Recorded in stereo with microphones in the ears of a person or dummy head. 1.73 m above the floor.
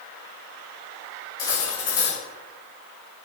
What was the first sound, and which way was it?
Cutlery clinking, 20° left (ahead or behind).